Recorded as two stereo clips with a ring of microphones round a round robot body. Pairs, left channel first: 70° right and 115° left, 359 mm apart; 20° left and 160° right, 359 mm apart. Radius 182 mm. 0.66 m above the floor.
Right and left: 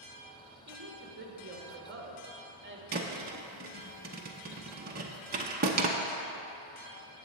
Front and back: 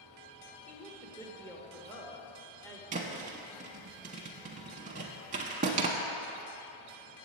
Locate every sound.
0.7 s a woman speaking: 100° left, 1.2 m
2.9 s a thud: 150° left, 0.6 m